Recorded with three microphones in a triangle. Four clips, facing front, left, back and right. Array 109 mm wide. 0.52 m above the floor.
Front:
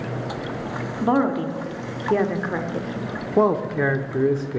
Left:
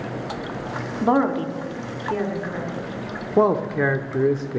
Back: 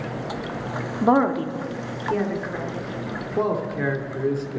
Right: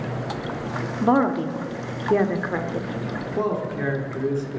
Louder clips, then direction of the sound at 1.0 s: Even, back 1 dB; 165° left.